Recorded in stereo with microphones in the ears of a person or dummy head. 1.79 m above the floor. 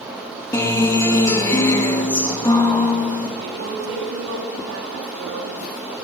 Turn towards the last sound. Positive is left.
turn(degrees=-80)